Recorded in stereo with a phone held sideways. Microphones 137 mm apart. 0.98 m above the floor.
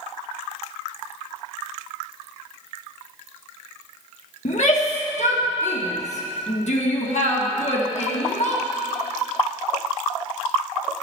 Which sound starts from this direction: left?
A shout, at 4.5 s.